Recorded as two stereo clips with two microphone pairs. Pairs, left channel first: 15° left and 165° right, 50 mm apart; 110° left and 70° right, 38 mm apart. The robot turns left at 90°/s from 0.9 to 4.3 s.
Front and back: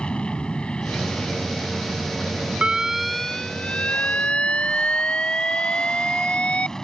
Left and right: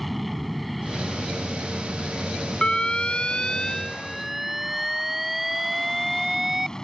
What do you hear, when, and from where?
0.0 s an aircraft: 20° left; by 6.8 s 70° left
2.6 s an alarm: 150° left; by 6.7 s 5° right